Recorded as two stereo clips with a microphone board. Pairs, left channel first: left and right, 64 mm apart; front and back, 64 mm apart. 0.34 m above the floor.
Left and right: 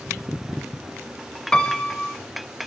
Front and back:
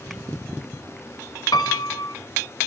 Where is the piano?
10° left, 0.6 m.